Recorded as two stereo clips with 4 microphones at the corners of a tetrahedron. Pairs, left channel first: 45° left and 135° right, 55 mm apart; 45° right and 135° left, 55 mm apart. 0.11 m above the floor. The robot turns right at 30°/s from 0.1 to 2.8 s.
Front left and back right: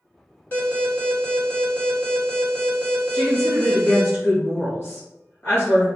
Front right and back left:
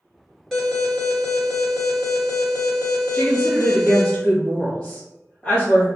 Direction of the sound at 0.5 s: 30° left.